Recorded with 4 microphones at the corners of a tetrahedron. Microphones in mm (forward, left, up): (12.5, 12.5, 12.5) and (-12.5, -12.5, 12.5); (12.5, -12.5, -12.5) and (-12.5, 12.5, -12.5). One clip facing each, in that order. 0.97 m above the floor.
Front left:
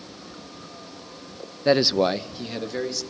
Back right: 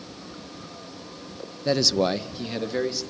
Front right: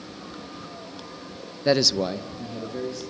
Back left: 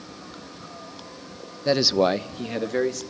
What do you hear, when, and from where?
1.6 s a man speaking: 15° left, 0.6 m; by 3.0 s 145° left, 1.9 m